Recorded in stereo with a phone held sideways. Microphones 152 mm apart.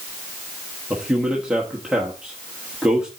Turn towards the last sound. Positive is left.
turn(degrees=-5)  # may be behind; listen again after turning